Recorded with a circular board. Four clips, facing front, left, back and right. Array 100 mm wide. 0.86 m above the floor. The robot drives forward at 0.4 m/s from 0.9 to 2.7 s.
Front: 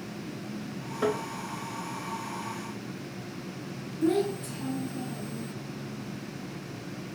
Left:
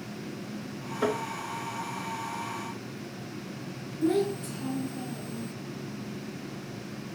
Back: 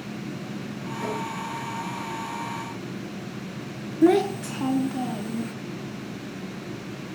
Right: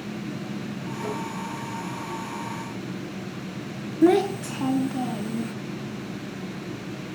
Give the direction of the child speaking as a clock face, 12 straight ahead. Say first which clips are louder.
Right 8 dB, back 7 dB; 4 o'clock.